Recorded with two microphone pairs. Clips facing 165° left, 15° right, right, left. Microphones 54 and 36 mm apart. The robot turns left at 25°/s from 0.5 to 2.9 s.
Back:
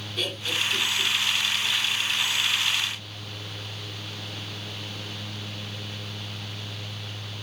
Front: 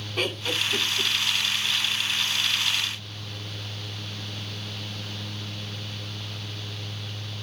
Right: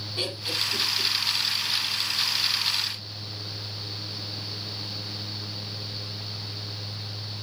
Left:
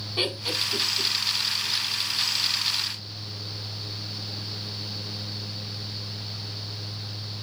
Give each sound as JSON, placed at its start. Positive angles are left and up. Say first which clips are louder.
{"t": 0.2, "sound": "laughter", "louder": "front 2 dB, left 2 dB", "azimuth_deg": 35, "distance_m": 2.5}